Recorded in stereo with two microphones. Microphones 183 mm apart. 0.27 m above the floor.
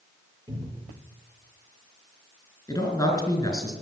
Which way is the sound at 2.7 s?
20° left (ahead or behind).